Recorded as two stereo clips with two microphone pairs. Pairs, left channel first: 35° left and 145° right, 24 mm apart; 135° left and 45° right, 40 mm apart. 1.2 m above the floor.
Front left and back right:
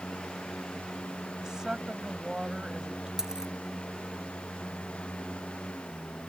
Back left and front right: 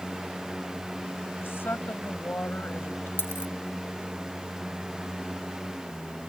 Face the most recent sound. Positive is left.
turn(degrees=150)